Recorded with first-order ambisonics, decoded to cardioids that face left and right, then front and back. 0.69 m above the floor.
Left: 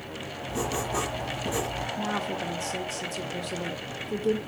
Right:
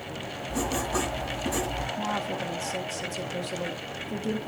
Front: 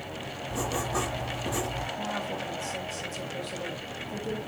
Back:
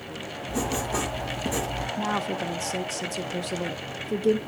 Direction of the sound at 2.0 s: 170° left.